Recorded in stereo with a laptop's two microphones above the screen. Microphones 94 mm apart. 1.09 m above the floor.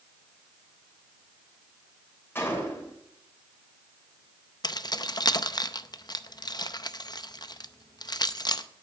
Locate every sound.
2.4 s a gunshot: 20° left (ahead or behind), 3 m
4.6 s keys jangling: 45° left (ahead or behind), 0.5 m